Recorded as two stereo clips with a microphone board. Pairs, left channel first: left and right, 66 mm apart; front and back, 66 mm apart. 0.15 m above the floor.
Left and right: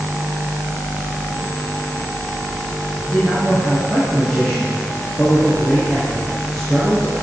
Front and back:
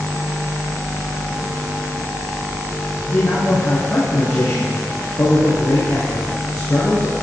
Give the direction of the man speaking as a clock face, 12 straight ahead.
12 o'clock.